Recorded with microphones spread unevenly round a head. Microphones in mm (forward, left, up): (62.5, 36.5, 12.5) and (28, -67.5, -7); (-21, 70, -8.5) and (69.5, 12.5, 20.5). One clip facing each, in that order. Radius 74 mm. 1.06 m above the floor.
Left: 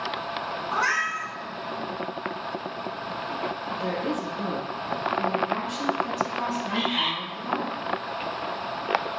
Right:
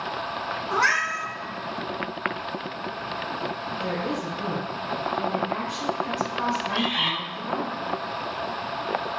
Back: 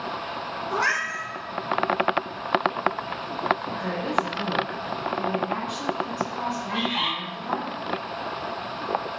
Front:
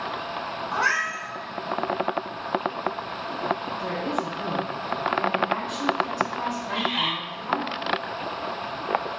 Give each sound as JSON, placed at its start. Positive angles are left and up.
{"t": 0.7, "sound": "a cat meowing", "azimuth_deg": -165, "distance_m": 1.2}
{"t": 3.7, "sound": "a woman speaking", "azimuth_deg": 80, "distance_m": 1.7}
{"t": 6.7, "sound": "a bird", "azimuth_deg": 100, "distance_m": 2.5}